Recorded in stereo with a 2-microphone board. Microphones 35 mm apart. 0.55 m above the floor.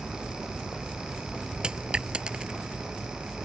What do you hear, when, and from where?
1.6 s a dropped coin: 30° right (ahead or behind)